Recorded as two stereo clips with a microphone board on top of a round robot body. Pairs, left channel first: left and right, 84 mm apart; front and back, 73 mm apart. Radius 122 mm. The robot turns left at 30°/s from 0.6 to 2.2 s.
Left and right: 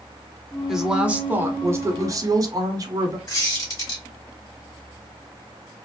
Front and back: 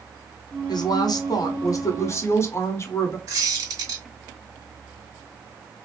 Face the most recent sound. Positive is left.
turn(degrees=140)